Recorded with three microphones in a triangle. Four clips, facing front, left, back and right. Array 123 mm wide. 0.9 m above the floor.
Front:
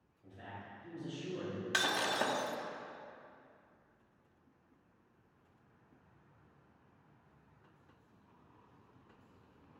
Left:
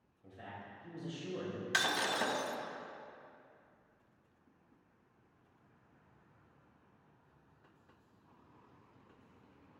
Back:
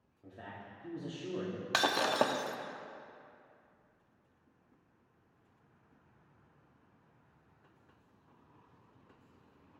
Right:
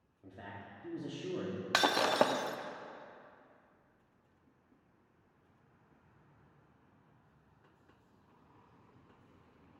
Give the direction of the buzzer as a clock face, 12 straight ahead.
I don't hear a buzzer.